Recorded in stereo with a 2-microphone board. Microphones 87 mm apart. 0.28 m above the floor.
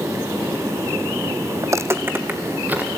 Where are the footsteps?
40° right (ahead or behind), 0.8 m; by 2.9 s 20° right (ahead or behind), 2.5 m.